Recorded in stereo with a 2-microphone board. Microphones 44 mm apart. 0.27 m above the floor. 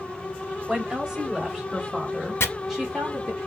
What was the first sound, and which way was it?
A woman speaking, 15° right (ahead or behind).